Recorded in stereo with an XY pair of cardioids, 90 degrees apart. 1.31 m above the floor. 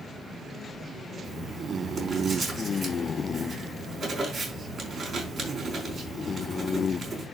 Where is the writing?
60° right, 5 m.